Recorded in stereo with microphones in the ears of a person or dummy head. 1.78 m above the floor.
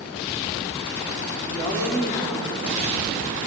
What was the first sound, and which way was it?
A woman speaking, 30° left (ahead or behind).